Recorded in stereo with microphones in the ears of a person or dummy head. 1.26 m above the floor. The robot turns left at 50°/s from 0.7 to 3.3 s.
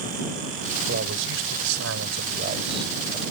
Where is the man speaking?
60° right; by 3.2 s 175° right.